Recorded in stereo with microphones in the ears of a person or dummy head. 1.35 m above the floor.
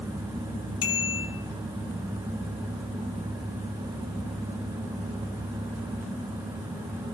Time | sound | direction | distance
0.8 | a bicycle bell | 30° left (ahead or behind) | 5 m